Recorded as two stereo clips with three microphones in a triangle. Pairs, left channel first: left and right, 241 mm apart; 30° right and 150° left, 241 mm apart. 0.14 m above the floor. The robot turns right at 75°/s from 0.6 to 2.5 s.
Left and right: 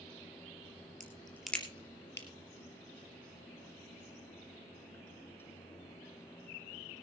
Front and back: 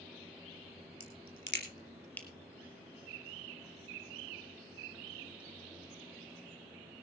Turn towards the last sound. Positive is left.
turn(degrees=75)